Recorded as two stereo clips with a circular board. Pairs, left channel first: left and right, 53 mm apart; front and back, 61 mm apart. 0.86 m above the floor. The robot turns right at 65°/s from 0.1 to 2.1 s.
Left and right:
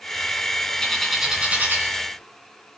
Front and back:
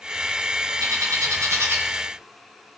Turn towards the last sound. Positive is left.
turn(degrees=-115)